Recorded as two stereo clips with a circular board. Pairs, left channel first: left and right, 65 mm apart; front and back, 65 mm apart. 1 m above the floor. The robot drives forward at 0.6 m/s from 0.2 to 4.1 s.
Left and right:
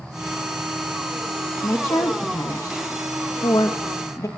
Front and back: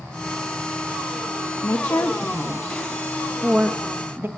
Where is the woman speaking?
40° left, 1.2 m; by 4.3 s 125° left, 1.0 m.